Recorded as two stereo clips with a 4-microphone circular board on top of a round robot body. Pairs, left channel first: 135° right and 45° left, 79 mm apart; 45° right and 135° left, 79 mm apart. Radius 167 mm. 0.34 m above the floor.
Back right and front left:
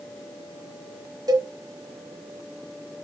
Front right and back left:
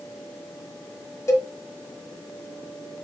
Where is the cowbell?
10° left, 1.4 m.